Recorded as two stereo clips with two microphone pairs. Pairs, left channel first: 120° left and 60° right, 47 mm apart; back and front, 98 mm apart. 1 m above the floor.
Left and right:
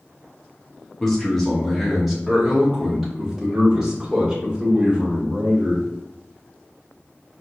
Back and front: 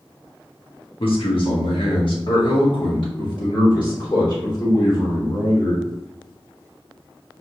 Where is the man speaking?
160° right, 1.5 m; by 5.8 s 135° right, 3.5 m.